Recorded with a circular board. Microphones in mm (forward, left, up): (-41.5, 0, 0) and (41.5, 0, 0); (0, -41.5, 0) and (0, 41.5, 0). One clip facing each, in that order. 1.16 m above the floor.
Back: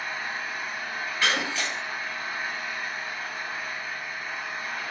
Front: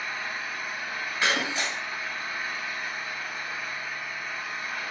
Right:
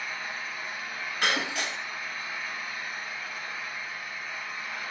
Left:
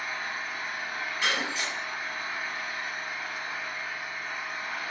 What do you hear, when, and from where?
0.0 s an engine running: 130° left, 1.6 m
1.2 s breaking glass: 70° right, 0.8 m